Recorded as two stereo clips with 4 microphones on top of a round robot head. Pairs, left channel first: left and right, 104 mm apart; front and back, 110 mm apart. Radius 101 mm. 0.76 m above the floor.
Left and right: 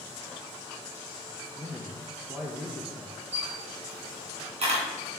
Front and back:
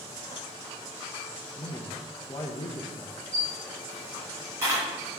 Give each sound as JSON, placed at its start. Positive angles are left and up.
{"t": 1.6, "sound": "a man speaking", "azimuth_deg": -20, "distance_m": 0.9}
{"t": 3.3, "sound": "a camera shutter", "azimuth_deg": -110, "distance_m": 2.5}